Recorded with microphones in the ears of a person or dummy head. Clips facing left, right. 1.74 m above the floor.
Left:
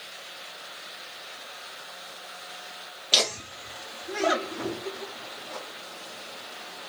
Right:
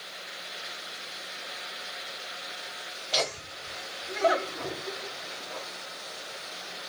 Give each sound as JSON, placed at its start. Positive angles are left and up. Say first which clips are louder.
{"t": 3.1, "sound": "laughter", "louder": "left 1 dB", "side_deg": 85, "distance_m": 0.9}